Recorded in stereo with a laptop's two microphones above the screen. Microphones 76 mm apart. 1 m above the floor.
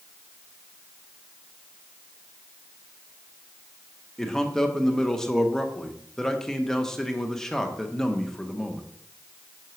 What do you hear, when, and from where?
4.2 s a man speaking: 10° left (ahead or behind), 0.9 m